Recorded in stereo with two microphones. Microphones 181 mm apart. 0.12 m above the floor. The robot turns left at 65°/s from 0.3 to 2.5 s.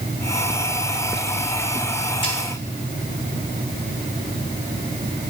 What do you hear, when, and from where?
2.2 s a snare drum: 25° left (ahead or behind), 2 m; by 2.4 s 35° left (ahead or behind), 2 m